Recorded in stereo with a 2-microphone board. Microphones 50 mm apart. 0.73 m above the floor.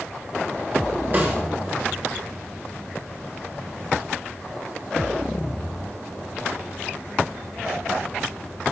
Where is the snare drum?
40° right (ahead or behind), 1.4 m.